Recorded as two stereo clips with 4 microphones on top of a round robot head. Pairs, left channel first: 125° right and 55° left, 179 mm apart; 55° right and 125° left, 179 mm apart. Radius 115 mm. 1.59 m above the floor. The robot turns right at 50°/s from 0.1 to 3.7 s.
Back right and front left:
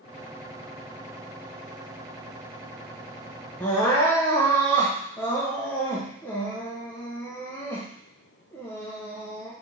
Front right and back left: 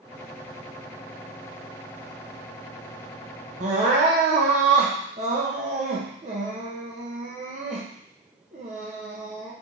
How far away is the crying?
About 0.6 m.